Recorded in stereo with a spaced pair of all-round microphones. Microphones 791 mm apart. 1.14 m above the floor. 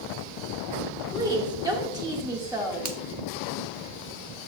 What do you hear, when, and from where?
1.1 s a woman speaking: 5° right (ahead or behind), 1.6 m
2.9 s a finger snap: 60° right (ahead or behind), 0.9 m